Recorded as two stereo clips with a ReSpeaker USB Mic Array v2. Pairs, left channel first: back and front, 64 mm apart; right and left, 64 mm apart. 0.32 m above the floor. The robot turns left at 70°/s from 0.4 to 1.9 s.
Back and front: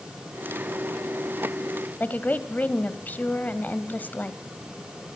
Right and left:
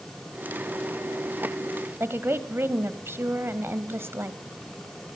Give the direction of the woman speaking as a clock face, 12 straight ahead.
8 o'clock.